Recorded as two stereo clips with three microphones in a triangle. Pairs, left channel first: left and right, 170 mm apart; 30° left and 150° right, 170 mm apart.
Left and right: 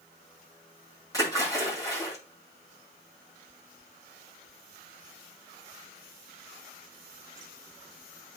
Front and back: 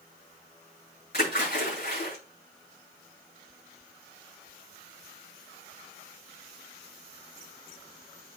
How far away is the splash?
About 6.5 m.